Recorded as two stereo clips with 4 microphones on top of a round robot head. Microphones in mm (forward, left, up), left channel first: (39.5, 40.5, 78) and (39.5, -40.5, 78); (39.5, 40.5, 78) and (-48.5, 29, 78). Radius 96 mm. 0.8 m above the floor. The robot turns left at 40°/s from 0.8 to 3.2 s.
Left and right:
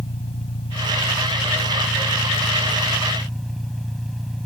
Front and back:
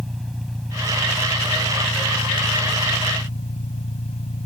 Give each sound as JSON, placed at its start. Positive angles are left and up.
{"t": 0.0, "sound": "an engine running", "azimuth_deg": 95}